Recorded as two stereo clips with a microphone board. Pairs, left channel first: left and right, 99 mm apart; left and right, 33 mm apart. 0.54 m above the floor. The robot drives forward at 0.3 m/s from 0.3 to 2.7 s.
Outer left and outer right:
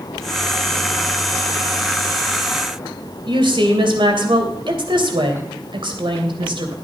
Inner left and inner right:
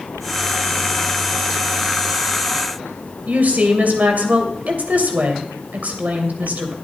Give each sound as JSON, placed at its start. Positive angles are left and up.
{"t": 3.2, "sound": "a woman speaking", "side_deg": -60, "distance_m": 2.5}